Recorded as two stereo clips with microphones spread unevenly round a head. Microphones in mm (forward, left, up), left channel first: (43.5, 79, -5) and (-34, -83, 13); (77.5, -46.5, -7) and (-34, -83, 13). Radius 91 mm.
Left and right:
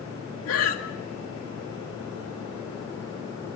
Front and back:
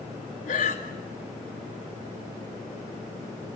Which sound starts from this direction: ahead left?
Breathing, at 0.5 s.